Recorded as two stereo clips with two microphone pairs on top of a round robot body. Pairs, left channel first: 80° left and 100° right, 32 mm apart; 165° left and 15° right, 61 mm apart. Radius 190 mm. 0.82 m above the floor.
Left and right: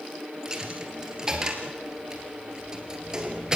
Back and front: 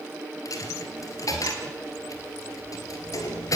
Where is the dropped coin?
170° right, 2 m.